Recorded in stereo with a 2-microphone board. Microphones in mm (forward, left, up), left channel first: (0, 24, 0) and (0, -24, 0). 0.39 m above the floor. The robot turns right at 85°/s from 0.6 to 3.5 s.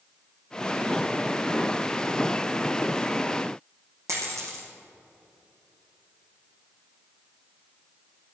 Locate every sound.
4.1 s a dropped coin: 80° right, 4 m